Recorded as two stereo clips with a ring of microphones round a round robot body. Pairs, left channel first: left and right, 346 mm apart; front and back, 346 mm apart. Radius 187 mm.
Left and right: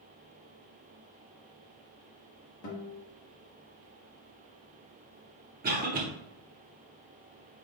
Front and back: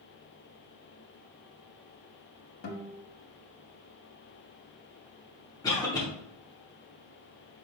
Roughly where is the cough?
Ahead right.